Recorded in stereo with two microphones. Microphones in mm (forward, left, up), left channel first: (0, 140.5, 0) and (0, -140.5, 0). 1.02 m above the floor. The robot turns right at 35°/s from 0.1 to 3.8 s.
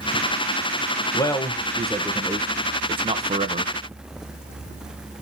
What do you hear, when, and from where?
1.1 s a man speaking: 15° left (ahead or behind), 0.9 m; by 3.7 s 30° right (ahead or behind), 0.9 m